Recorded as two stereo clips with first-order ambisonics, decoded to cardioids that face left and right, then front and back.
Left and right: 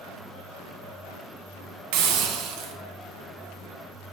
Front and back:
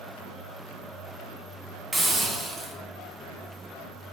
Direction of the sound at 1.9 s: 100° right.